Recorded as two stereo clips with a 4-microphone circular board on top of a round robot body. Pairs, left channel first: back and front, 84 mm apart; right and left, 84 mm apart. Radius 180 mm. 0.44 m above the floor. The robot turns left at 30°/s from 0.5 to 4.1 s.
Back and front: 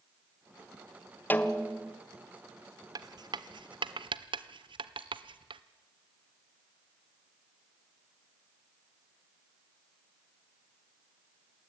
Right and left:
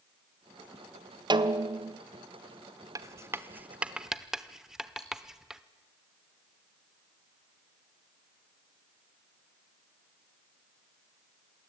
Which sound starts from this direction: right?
Cutlery clinking, at 5.0 s.